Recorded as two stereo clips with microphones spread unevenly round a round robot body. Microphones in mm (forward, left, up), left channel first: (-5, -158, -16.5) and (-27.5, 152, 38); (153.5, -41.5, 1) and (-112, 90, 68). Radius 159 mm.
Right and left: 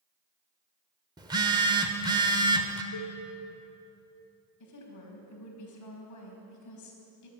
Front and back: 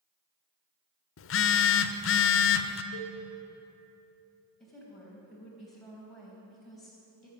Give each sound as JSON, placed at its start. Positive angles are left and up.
{"t": 1.2, "sound": "a phone buzzing", "azimuth_deg": 15, "distance_m": 0.8}
{"t": 2.9, "sound": "a cowbell", "azimuth_deg": -45, "distance_m": 2.5}
{"t": 4.6, "sound": "a woman speaking", "azimuth_deg": -110, "distance_m": 4.0}